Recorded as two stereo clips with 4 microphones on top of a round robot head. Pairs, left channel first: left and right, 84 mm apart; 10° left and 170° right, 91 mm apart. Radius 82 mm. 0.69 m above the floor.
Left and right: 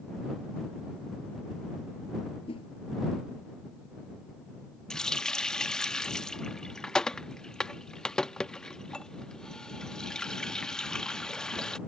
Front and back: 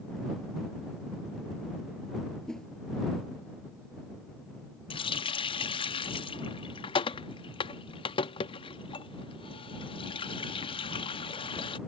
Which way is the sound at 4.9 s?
10° left.